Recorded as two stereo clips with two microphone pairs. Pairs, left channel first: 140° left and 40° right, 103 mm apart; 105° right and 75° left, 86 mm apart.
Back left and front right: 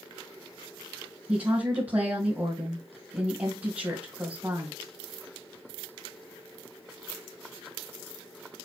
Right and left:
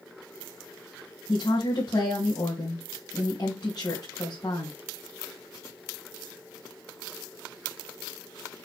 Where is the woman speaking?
110° right, 2.5 m.